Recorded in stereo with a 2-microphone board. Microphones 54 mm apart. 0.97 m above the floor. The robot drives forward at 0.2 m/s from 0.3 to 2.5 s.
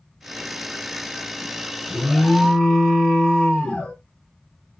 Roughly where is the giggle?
I don't hear a giggle.